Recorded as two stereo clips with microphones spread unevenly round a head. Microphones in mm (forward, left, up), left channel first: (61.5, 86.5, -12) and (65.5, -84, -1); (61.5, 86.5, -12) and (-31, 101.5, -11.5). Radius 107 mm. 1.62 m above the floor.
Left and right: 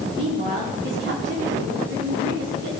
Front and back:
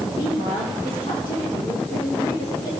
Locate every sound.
0.1 s a woman speaking: 75° right, 4 m